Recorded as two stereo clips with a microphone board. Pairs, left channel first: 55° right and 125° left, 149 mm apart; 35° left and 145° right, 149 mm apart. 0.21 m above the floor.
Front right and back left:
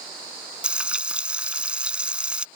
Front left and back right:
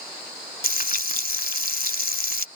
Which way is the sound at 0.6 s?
40° left.